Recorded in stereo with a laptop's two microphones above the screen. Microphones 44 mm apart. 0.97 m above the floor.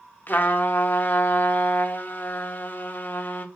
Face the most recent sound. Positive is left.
turn(degrees=45)  # may be behind; listen again after turning